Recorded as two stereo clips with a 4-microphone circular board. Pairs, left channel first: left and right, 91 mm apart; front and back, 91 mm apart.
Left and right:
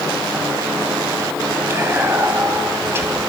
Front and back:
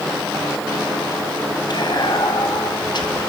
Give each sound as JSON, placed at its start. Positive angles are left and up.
{"t": 1.7, "sound": "whispering", "azimuth_deg": -30, "distance_m": 2.5}